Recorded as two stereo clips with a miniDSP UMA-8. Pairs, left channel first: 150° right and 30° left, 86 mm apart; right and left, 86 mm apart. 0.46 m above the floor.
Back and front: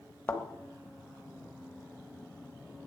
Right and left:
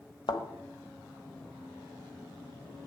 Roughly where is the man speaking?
I don't hear a man speaking.